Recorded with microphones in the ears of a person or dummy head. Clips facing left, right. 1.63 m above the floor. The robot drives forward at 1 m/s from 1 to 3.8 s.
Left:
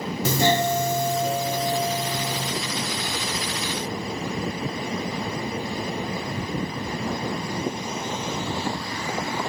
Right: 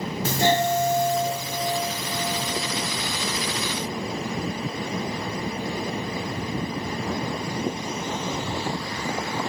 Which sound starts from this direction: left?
A doorbell, at 0.2 s.